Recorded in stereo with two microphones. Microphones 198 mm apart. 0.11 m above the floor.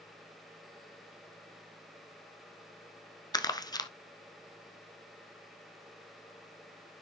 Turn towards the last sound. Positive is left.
turn(degrees=20)  # may be behind; listen again after turning